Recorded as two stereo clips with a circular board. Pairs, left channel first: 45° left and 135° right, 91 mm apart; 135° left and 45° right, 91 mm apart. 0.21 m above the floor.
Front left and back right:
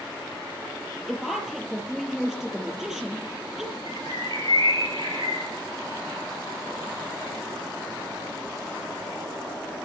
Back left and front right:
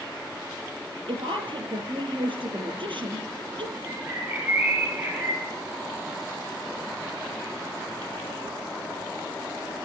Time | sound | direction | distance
1.1 | a woman speaking | 50° right | 6 m
3.9 | a bird | 115° right | 6 m